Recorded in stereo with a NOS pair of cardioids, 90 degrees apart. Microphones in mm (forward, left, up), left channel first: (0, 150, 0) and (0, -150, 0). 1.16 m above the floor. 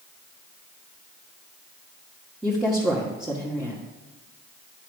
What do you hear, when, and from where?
2.4 s a woman speaking: straight ahead, 1.6 m